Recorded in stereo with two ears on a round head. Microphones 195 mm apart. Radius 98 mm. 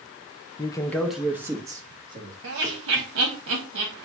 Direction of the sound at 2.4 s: 55° right (ahead or behind).